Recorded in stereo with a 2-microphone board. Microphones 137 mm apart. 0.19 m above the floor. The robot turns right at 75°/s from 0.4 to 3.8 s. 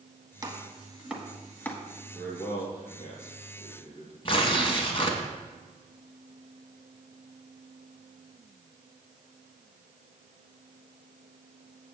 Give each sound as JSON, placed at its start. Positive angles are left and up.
{"t": 0.4, "sound": "chopping", "side_deg": -25, "distance_m": 1.5}
{"t": 2.1, "sound": "a man speaking", "side_deg": 0, "distance_m": 3.5}
{"t": 4.2, "sound": "tearing paper", "side_deg": 40, "distance_m": 1.7}